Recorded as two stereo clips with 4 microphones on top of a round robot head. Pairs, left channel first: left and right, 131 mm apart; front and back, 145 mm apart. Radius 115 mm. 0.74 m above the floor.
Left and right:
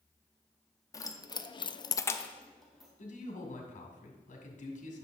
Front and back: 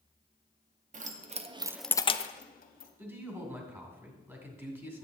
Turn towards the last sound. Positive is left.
turn(degrees=105)